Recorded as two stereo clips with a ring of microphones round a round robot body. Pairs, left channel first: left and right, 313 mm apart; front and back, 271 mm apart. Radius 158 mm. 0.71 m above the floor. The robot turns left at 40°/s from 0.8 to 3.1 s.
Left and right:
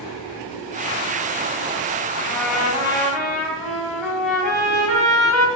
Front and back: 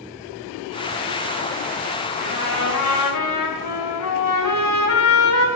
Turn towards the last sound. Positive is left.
turn(degrees=5)